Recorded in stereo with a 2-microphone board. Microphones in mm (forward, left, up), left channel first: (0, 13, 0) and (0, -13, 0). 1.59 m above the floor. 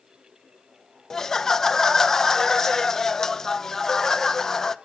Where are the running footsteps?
No running footsteps in this recording.